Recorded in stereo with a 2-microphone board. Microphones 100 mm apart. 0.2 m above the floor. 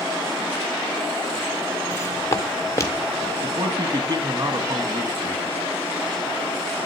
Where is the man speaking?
45° right (ahead or behind), 1.5 m.